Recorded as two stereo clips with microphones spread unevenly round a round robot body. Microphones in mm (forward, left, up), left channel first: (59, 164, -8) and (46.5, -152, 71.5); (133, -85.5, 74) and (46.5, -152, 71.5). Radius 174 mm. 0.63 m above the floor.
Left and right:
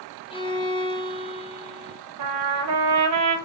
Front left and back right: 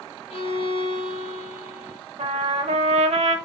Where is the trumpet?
130° right, 0.7 m.